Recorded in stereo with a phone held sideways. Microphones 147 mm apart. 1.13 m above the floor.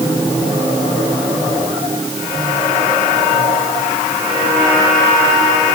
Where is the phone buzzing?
No phone buzzing in this recording.